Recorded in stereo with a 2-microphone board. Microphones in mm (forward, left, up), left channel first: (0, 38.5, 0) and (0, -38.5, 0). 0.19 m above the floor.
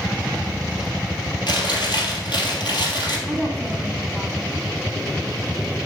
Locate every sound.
1.5 s chewing: 75° left (ahead or behind), 3 m
3.3 s a woman speaking: 5° left (ahead or behind), 1.0 m